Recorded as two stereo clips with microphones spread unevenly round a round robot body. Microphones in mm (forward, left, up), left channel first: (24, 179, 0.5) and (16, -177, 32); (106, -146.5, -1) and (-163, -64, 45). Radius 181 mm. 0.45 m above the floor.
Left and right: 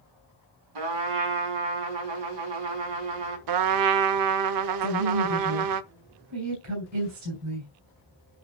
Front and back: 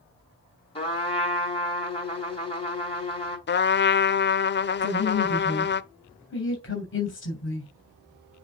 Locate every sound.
0.8 s a trumpet: 85° right, 4.5 m
3.5 s a trumpet: 65° right, 0.7 m
4.8 s a woman speaking: 50° right, 3 m